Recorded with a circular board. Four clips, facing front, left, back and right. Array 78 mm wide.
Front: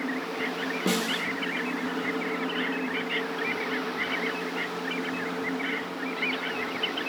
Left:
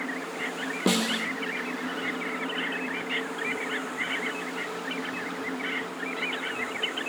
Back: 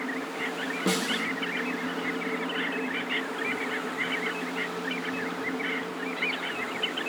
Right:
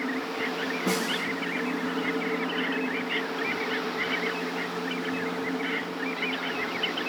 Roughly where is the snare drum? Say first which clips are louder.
Left 4 dB, even; left.